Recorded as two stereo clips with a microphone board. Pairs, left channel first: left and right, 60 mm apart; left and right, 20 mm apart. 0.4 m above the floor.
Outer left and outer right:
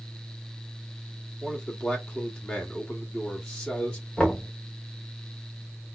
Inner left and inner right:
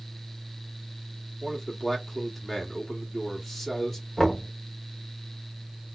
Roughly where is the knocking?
Centre.